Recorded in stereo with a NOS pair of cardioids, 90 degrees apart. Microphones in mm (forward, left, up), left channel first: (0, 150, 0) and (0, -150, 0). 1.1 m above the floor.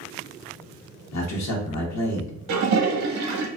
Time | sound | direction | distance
1.1 | a man speaking | 65° left | 1.0 m
2.5 | a toilet flushing | 65° right | 0.7 m